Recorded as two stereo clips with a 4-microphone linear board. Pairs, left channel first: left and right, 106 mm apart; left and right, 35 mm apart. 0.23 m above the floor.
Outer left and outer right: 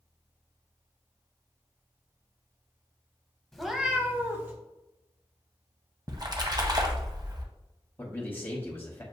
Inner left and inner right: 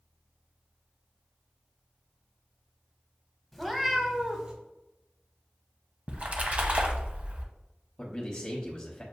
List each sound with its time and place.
3.5 s a cat meowing: 5° left (ahead or behind), 0.7 m; by 4.5 s 25° right (ahead or behind), 1.0 m
6.1 s a splash: 40° right (ahead or behind), 0.7 m
8.0 s a man speaking: 20° left (ahead or behind), 1.0 m